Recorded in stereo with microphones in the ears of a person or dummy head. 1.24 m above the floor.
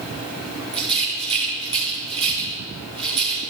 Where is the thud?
I don't hear a thud.